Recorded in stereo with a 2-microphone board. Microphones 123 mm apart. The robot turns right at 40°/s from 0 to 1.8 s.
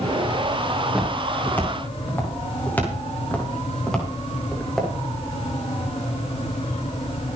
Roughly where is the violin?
No violin in this recording.